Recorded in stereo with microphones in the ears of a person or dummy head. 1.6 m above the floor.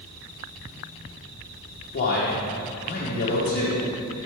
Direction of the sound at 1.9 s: 45° left (ahead or behind).